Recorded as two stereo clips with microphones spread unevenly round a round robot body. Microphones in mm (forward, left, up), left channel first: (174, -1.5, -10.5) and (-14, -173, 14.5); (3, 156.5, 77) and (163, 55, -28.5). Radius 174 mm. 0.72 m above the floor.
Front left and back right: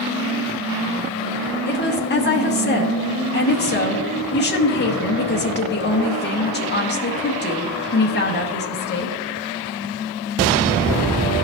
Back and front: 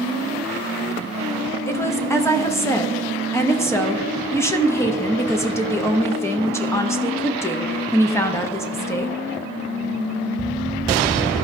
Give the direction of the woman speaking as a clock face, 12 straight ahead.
11 o'clock.